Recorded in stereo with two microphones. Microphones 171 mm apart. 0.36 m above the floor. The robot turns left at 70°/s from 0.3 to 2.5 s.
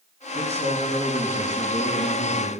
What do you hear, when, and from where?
0.3 s a man speaking: 125° right, 3.5 m; by 2.5 s 85° left, 3.5 m